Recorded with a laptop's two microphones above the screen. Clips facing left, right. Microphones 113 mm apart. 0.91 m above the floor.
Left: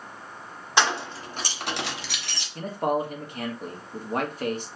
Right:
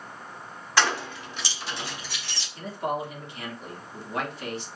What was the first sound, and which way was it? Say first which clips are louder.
Keys jangling: left 1 dB; 20° left (ahead or behind).